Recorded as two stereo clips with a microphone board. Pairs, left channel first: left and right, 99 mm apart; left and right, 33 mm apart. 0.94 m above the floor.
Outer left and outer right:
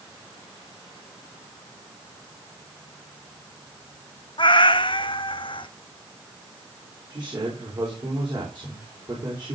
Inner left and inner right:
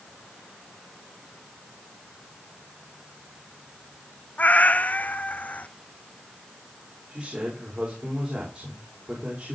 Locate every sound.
4.4 s a cat meowing: 55° left (ahead or behind), 0.6 m
7.1 s a man speaking: 50° right (ahead or behind), 4 m